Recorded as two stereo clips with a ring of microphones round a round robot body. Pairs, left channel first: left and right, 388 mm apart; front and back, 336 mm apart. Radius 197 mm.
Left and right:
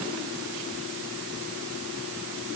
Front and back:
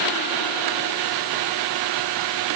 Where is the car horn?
I don't hear a car horn.